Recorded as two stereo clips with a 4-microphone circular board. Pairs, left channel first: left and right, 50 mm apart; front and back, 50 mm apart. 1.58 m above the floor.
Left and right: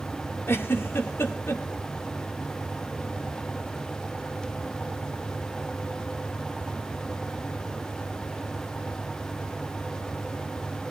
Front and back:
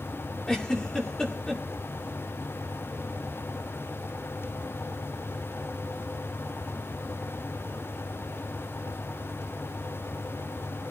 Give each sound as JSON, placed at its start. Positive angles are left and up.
{"t": 0.5, "sound": "a giggle", "azimuth_deg": 75, "distance_m": 2.0}